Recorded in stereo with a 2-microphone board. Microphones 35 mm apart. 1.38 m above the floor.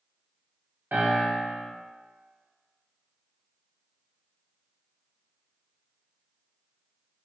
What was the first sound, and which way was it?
A piano, 70° right (ahead or behind).